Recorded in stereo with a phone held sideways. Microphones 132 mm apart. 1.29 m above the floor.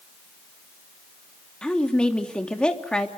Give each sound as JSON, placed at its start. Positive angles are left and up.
{"t": 1.6, "sound": "a woman speaking", "side_deg": 5, "distance_m": 3.0}